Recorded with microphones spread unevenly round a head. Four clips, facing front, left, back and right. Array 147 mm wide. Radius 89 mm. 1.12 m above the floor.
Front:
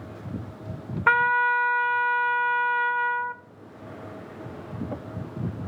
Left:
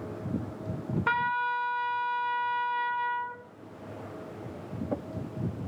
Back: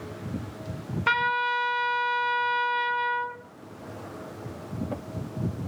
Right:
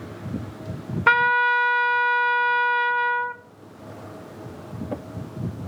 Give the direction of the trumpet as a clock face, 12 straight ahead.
3 o'clock.